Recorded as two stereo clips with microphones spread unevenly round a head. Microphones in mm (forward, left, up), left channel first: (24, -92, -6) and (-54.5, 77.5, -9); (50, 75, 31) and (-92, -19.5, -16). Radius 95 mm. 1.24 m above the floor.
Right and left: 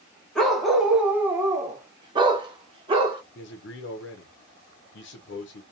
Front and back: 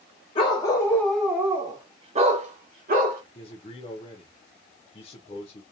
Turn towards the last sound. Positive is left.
turn(degrees=-35)